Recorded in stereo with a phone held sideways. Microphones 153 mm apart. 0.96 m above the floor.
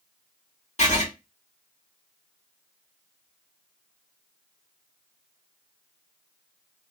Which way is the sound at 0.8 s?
50° left (ahead or behind).